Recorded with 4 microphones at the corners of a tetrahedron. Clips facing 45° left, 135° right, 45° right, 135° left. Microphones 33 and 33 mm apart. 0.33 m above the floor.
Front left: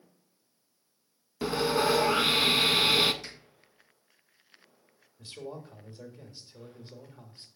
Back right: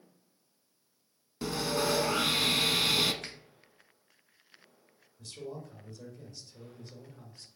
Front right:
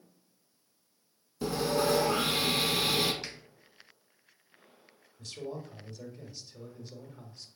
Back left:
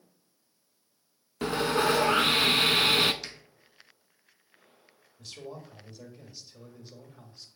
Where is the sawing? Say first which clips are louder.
Front left 5 dB, back left 3 dB; 105° left, 0.5 m.